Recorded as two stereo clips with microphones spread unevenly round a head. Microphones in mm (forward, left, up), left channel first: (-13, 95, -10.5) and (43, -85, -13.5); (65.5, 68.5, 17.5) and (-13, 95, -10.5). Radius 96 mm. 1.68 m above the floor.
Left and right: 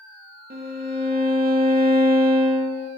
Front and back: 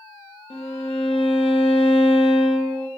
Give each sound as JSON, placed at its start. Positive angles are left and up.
{"t": 0.5, "sound": "a violin", "azimuth_deg": -30, "distance_m": 0.7}